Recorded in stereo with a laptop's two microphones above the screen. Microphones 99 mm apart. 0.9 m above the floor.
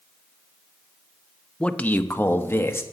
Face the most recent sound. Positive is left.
turn(degrees=25)  # may be behind; listen again after turning